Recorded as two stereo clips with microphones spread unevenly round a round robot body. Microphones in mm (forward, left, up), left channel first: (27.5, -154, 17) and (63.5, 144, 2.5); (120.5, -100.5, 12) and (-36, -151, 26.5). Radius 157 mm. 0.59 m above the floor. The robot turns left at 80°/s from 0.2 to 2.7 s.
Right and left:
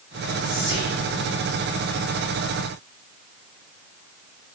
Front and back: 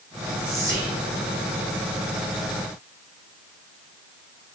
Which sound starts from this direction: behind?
Whispering, at 0.4 s.